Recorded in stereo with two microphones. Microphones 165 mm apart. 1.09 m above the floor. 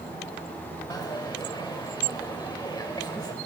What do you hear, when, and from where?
0.9 s a dropped coin: 25° left (ahead or behind), 1.8 m